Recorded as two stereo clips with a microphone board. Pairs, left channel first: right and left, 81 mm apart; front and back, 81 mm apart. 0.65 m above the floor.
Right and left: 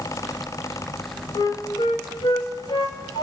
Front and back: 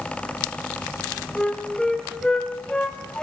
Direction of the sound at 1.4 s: 80° right.